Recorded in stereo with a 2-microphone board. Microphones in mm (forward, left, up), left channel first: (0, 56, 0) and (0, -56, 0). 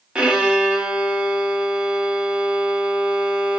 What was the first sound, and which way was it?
A violin, 10° right (ahead or behind).